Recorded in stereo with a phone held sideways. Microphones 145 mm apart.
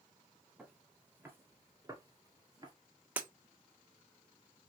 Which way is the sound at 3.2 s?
10° right (ahead or behind).